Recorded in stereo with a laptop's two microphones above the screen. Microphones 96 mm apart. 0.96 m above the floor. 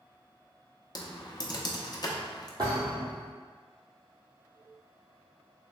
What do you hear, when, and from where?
0.9 s typing on a keyboard: 40° left (ahead or behind), 0.5 m
2.6 s a thud: 45° right (ahead or behind), 1.6 m